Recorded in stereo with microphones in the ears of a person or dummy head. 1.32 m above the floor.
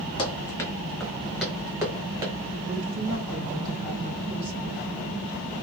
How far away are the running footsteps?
About 1.4 m.